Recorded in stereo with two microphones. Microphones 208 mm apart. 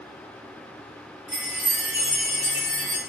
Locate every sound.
1.3 s a chime: 40° left (ahead or behind), 2 m